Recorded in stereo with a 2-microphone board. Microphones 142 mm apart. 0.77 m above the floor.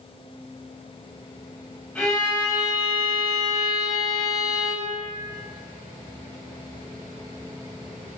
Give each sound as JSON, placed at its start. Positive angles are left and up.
{"t": 1.9, "sound": "a violin", "side_deg": 10, "distance_m": 3.0}